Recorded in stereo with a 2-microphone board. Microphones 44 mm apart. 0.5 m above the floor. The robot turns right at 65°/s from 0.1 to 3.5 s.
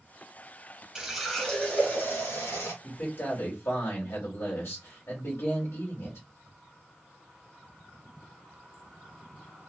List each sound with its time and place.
0.9 s a running tap: 15° right, 1.7 m; by 2.7 s 100° left, 1.7 m
2.8 s a man speaking: 45° left, 1.9 m; by 6.2 s 90° left, 1.9 m